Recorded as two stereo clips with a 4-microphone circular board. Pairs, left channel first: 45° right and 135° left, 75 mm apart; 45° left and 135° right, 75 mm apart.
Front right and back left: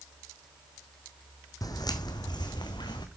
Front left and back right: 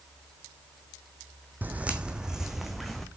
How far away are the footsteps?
About 1.0 m.